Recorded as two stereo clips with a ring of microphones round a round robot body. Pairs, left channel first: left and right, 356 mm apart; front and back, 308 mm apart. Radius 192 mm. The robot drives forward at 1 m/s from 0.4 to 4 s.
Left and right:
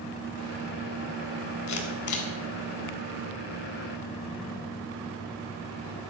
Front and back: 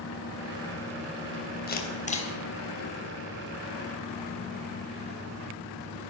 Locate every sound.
1.7 s a camera shutter: 55° left, 3 m; by 2.3 s 70° left, 3 m